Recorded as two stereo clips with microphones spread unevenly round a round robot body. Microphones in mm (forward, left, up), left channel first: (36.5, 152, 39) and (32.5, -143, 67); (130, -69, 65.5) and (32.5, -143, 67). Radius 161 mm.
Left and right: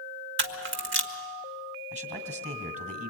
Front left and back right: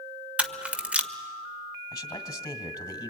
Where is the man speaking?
20° right, 2.5 m.